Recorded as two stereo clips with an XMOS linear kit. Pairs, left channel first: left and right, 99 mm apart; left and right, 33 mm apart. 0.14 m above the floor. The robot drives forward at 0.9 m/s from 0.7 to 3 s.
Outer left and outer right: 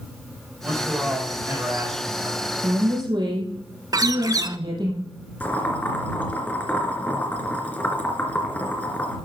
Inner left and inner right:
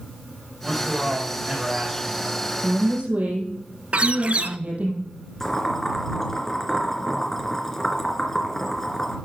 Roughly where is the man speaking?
Right.